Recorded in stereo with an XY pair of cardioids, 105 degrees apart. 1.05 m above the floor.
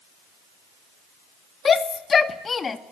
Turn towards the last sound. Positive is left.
turn(degrees=35)